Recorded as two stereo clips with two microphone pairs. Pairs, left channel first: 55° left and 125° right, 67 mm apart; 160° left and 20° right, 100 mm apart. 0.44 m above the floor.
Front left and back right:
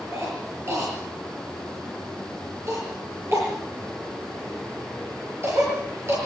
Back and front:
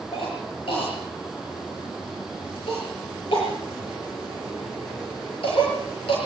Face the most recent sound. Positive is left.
turn(degrees=-175)